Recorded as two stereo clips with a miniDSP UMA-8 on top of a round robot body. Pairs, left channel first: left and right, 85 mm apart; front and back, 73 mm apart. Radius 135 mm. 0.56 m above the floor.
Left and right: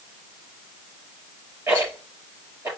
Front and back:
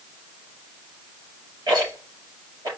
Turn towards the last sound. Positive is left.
turn(degrees=-150)